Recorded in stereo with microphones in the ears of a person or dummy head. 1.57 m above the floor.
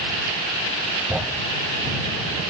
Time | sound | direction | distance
1.1 | a thud | centre (ahead or behind) | ?